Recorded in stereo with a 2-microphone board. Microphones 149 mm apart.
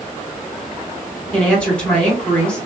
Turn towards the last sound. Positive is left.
turn(degrees=5)  # may be behind; listen again after turning